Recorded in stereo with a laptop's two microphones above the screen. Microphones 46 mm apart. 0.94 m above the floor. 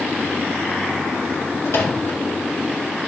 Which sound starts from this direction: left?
A microwave, at 1.6 s.